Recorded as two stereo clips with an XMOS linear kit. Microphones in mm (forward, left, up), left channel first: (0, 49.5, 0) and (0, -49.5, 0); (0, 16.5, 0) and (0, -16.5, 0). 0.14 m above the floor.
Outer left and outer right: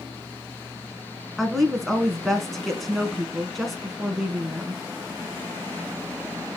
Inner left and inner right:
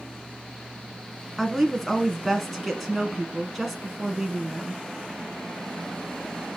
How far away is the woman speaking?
About 1.2 m.